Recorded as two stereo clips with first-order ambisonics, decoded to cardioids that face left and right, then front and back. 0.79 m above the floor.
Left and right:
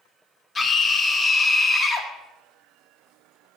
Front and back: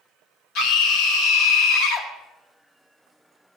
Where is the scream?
15° left, 1.6 m.